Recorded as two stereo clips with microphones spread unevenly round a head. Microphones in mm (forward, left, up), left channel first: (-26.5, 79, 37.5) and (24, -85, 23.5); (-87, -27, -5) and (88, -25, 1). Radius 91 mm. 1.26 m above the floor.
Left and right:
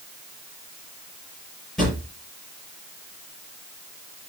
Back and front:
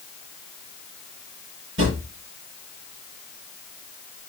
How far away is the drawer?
About 6.5 m.